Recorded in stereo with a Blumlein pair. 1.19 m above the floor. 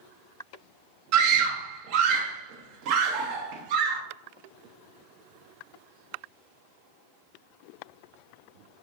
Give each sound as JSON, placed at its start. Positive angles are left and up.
{"t": 1.1, "sound": "a scream", "azimuth_deg": -45, "distance_m": 0.8}